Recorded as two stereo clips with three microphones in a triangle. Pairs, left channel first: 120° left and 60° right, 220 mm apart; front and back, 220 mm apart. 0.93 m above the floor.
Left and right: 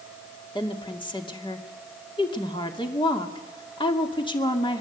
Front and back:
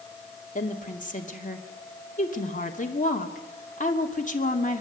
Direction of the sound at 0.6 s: 50° left.